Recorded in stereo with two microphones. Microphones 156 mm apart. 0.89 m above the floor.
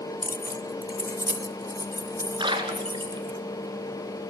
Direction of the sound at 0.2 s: 65° left (ahead or behind).